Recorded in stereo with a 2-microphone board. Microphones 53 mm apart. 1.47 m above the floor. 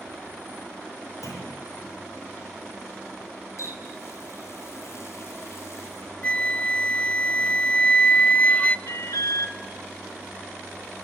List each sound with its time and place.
1.2 s a clunk: 80° left, 6.5 m
3.6 s a running tap: 60° left (ahead or behind), 6 m
6.2 s a flute: 20° left (ahead or behind), 0.7 m
8.9 s an alarm: 80° left, 1.6 m